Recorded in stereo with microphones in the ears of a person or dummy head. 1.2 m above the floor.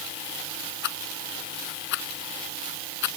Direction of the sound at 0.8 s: 70° left (ahead or behind).